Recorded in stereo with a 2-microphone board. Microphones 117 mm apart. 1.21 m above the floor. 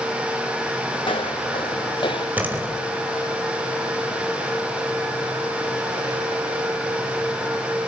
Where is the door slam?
15° right (ahead or behind), 4 m.